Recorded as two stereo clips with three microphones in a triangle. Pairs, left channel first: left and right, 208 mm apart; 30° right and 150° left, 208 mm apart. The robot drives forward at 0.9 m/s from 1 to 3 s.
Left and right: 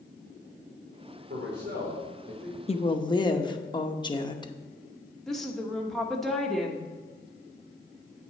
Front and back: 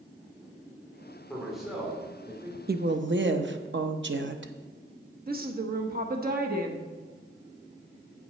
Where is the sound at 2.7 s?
140° left, 0.6 m; by 4.5 s 155° left, 0.8 m.